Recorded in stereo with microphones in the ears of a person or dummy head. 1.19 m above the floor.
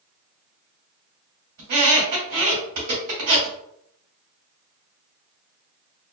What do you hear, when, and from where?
1.6 s a squeak: 55° right (ahead or behind), 1.9 m